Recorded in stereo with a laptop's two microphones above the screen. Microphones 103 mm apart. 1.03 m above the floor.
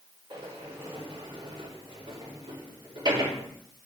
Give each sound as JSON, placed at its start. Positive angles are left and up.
{"t": 0.3, "sound": "a sliding door", "side_deg": -50, "distance_m": 4.5}